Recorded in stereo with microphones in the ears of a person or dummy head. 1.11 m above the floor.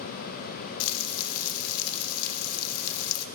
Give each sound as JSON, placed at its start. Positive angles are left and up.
{"t": 0.8, "sound": "frying", "side_deg": 70, "distance_m": 0.5}